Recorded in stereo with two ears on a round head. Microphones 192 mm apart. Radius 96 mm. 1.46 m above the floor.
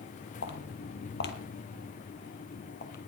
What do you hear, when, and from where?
0.4 s footsteps: 55° left (ahead or behind), 2.5 m; by 3.0 s 40° left (ahead or behind), 2.5 m